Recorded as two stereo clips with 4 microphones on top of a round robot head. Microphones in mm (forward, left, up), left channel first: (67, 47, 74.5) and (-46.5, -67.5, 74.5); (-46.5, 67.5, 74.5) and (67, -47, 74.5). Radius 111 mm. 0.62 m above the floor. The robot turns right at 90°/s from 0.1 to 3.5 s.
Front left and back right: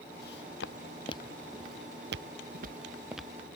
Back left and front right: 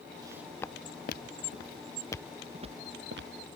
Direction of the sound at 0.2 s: 20° left.